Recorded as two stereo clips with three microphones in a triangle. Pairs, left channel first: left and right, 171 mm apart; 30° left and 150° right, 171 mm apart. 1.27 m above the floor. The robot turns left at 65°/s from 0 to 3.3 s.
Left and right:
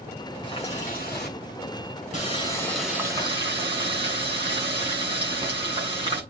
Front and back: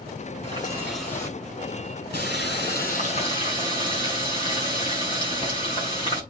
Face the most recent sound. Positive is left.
turn(degrees=-30)